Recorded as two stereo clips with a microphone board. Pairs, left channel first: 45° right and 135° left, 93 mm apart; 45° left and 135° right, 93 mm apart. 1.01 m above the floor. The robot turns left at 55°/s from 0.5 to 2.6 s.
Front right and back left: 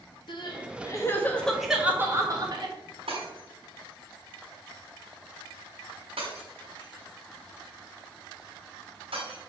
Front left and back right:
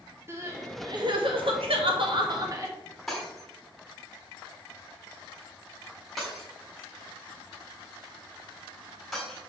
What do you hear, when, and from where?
0.3 s crying: 75° right, 1.8 m; by 2.8 s 170° left, 1.8 m
3.1 s breaking glass: 135° left, 4 m